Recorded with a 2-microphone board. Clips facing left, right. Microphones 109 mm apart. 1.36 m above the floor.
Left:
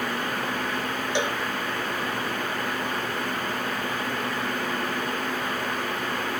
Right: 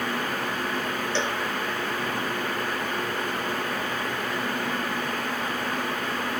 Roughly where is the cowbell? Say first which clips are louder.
Left 2 dB; centre.